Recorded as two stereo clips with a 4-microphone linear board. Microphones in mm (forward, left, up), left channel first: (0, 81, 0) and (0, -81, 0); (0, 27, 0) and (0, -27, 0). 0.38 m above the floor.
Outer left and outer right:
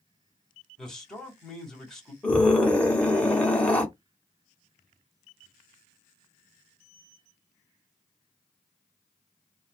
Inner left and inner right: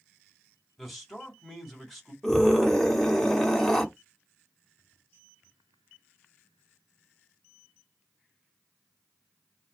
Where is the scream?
10° left (ahead or behind), 1.3 m.